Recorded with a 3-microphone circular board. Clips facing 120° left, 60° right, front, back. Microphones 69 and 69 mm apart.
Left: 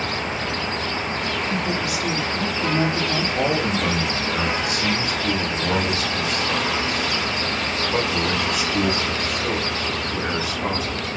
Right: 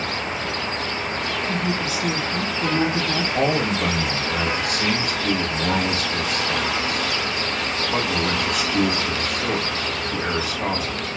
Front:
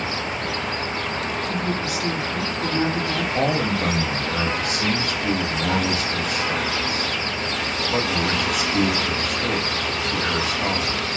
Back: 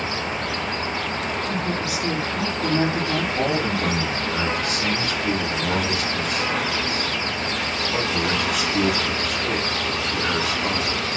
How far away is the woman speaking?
About 1.7 m.